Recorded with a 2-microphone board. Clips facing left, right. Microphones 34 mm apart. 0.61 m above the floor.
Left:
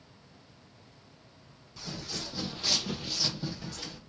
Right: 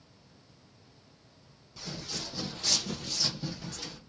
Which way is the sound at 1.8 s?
10° left (ahead or behind).